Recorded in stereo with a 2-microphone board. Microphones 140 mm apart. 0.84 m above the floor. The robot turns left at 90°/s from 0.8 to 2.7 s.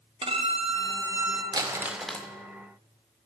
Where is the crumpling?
130° right, 0.5 m; by 2.3 s 160° left, 0.5 m.